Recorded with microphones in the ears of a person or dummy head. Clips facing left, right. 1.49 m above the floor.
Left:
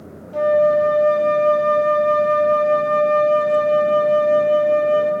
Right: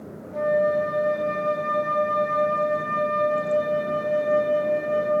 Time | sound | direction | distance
0.3 | a flute | 50° left (ahead or behind) | 0.7 m